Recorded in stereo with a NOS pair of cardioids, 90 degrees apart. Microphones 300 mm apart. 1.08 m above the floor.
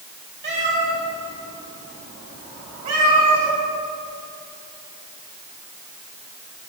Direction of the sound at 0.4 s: 40° right.